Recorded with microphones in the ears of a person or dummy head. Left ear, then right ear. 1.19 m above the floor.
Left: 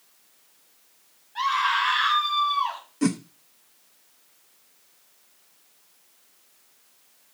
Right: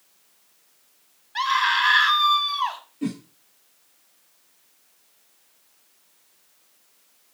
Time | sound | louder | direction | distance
1.4 | a scream | right 2 dB | 65° right (ahead or behind) | 5 m
3.0 | a whoosh | left 5 dB | 45° left (ahead or behind) | 1.0 m